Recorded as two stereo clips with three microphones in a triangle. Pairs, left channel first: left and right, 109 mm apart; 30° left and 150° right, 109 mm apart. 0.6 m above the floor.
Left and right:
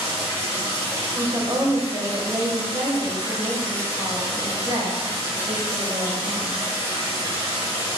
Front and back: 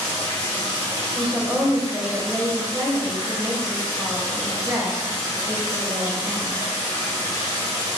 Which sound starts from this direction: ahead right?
Running water, at 0.0 s.